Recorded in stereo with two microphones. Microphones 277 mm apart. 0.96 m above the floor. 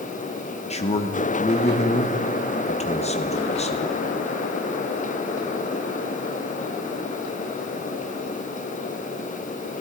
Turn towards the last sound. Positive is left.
turn(degrees=25)  # may be behind; listen again after turning